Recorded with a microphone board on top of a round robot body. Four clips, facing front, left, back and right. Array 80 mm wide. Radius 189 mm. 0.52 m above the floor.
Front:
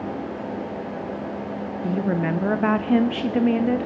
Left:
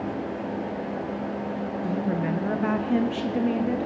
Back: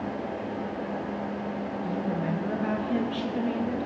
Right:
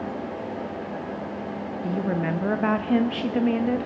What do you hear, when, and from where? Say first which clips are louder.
1.8 s a woman speaking: right 2 dB, front 8 dB; 20° right, 0.8 m